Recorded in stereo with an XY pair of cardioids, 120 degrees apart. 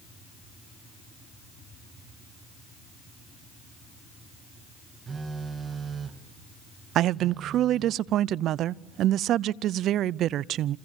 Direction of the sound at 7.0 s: 65° right.